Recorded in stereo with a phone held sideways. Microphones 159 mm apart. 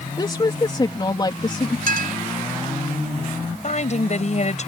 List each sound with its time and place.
0.2 s a woman speaking: 30° left (ahead or behind)
1.9 s a clink: 75° right (ahead or behind)
3.6 s a woman speaking: 50° left (ahead or behind)